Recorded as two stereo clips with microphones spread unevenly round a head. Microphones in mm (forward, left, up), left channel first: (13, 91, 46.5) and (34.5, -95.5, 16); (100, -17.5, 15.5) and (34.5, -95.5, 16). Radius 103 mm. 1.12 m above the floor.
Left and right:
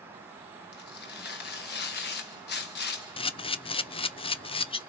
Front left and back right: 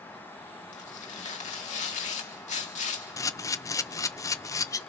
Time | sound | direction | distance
0.7 | tearing paper | 60° left | 1.3 m
3.2 | a camera shutter | 40° left | 0.5 m